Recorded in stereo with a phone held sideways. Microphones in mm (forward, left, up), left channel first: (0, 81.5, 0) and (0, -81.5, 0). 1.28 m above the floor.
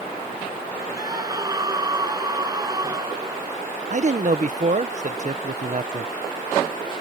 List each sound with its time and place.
1.0 s a scream: 25° right (ahead or behind)
3.9 s a man speaking: 55° right (ahead or behind)